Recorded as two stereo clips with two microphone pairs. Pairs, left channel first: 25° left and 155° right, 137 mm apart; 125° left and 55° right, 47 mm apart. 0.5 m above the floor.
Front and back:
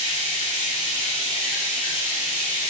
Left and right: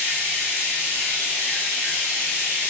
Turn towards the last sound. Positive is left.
turn(degrees=70)